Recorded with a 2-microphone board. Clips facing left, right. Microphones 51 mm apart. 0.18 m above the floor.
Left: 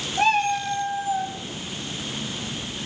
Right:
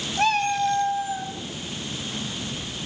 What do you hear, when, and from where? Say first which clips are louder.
0.2 s a cat meowing: left 1 dB; 15° left (ahead or behind), 4 m